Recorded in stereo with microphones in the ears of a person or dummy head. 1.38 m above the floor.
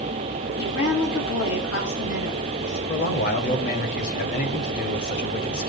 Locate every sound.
0.6 s a woman speaking: 80° left, 7 m
2.9 s a man speaking: 50° left (ahead or behind), 3 m